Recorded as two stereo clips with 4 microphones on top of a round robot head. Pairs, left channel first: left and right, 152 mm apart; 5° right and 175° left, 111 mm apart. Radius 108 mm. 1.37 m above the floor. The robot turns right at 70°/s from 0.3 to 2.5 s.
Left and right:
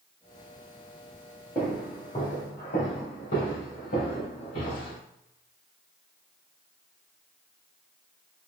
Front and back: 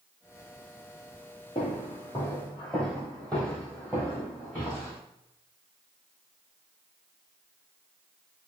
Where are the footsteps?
Straight ahead, 1.7 m; by 5.0 s 75° left, 4 m.